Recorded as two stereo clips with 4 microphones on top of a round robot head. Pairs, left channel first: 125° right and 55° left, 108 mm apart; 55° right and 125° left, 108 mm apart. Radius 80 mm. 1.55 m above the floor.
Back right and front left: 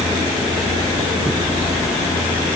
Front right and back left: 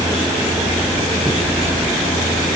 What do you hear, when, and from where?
Only background noise.